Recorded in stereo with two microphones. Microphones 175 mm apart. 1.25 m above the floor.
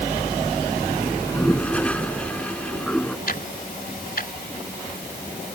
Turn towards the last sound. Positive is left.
turn(degrees=60)  # may be behind; listen again after turning